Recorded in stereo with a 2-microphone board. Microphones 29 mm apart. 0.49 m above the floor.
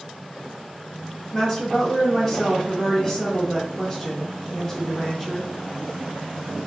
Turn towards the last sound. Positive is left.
turn(degrees=15)  # may be behind; listen again after turning